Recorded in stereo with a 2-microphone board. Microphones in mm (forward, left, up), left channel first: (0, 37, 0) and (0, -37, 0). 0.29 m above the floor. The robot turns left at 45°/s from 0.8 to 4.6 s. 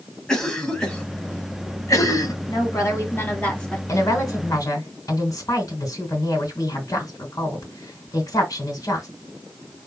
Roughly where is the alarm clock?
I don't hear an alarm clock.